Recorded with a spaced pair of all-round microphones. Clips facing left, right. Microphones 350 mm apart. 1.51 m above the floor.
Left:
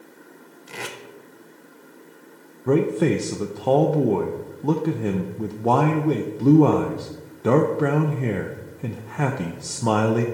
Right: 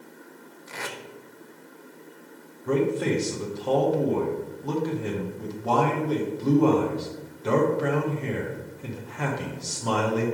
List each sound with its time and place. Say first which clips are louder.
0.7 s tape being pulled: left 2 dB; 45° left (ahead or behind), 0.7 m
2.7 s a man speaking: left 4 dB; 65° left (ahead or behind), 0.6 m